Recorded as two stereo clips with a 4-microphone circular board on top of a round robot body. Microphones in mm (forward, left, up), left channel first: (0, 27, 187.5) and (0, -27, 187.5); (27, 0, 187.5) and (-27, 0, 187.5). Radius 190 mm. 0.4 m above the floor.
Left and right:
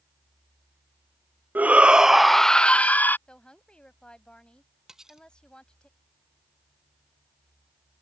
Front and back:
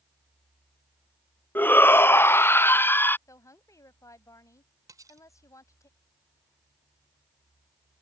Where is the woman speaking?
20° left.